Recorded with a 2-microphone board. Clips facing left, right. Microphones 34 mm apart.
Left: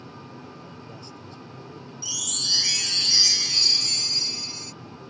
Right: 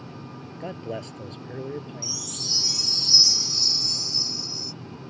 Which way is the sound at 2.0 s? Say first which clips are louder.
Left 5 dB; 70° left (ahead or behind).